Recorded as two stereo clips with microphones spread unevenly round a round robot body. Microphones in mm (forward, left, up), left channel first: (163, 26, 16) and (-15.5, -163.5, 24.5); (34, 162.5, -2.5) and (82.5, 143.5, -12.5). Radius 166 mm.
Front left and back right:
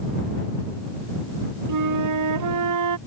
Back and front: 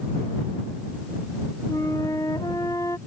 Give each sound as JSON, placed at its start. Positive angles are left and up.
{"t": 1.7, "sound": "a flute", "azimuth_deg": -135}